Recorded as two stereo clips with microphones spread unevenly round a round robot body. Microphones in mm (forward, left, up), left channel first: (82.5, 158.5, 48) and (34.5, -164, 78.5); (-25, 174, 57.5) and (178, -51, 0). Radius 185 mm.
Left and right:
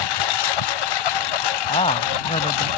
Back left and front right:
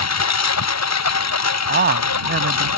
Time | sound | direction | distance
0.0 | a lawn mower | 95° left | ?
1.7 | a man speaking | 10° left | ?